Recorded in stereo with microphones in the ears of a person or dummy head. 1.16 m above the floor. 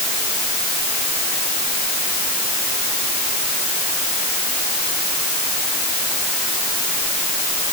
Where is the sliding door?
No sliding door in this recording.